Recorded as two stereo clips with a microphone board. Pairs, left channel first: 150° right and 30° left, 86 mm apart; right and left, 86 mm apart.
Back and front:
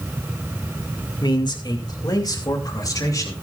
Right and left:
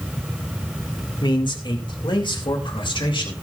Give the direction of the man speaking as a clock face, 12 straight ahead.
4 o'clock.